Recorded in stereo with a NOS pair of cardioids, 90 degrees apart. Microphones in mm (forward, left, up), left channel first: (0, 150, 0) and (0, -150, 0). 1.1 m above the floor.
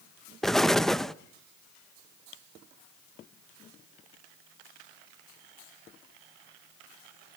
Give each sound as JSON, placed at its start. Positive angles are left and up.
{"t": 0.4, "sound": "an explosion", "azimuth_deg": 0, "distance_m": 0.7}